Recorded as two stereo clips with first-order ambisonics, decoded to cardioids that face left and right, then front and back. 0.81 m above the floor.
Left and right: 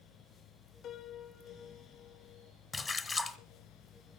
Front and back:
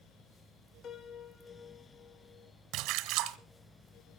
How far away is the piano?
About 0.9 m.